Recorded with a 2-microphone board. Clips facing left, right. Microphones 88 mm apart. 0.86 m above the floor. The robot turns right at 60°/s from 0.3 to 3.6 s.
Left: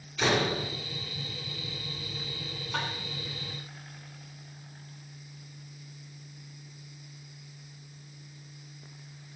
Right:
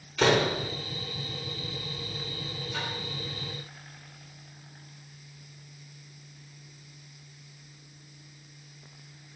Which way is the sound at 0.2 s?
65° right (ahead or behind).